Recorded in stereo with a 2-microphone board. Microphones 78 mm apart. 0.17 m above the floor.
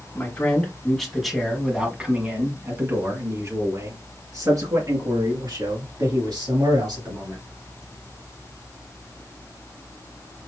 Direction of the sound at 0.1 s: 20° left (ahead or behind).